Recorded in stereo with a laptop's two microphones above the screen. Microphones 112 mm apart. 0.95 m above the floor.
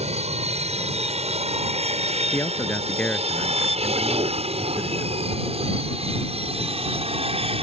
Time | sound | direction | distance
0.0 | an aircraft | 70° right (ahead or behind) | ?
2.3 | a man speaking | 15° left (ahead or behind) | ?